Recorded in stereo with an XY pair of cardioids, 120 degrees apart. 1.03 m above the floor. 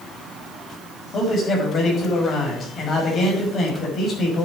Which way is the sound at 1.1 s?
45° left.